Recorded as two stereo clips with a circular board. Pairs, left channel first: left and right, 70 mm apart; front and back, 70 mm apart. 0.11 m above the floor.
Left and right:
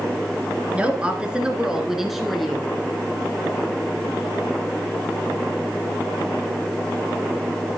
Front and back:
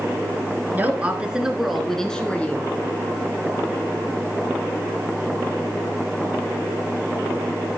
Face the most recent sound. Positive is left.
turn(degrees=5)